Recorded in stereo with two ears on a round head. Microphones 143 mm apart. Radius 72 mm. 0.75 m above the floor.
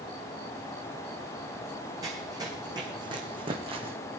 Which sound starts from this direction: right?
Running footsteps, at 2.0 s.